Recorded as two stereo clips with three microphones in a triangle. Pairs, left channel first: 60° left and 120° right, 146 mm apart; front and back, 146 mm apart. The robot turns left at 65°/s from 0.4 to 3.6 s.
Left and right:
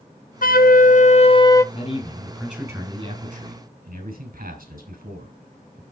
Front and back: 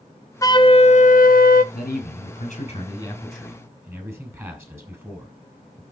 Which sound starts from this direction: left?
A flute, at 0.4 s.